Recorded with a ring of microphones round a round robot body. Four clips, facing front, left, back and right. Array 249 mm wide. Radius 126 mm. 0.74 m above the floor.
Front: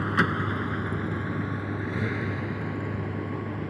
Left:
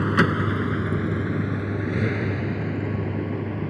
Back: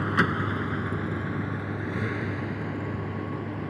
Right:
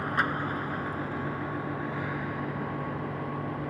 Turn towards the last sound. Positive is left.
turn(degrees=85)